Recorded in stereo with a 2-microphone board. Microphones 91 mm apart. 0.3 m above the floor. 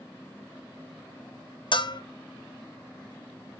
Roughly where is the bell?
Left.